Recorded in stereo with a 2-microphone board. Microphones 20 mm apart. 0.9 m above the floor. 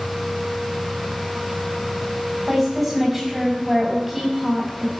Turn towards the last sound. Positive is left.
turn(degrees=-15)  # may be behind; listen again after turning